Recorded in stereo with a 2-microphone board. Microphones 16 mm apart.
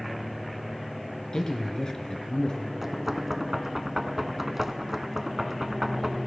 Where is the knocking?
20° right (ahead or behind), 1.0 m.